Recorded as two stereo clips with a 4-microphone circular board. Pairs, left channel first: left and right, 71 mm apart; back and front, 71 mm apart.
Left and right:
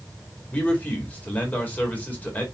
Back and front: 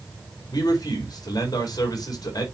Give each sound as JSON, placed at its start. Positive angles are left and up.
{"t": 0.5, "sound": "a man speaking", "azimuth_deg": 160, "distance_m": 4.5}